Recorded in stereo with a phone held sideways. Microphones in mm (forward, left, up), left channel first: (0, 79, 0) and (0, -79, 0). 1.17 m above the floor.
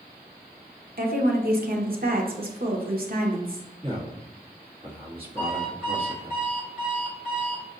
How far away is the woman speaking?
About 0.9 m.